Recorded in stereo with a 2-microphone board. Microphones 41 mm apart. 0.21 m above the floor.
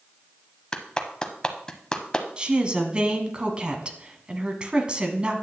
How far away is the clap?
About 0.9 m.